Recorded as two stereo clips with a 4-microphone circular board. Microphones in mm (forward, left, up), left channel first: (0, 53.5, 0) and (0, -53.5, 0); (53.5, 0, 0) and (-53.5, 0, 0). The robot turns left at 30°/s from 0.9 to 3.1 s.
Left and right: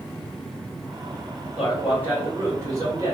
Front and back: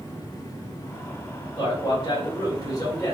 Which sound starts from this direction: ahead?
A man speaking, at 1.6 s.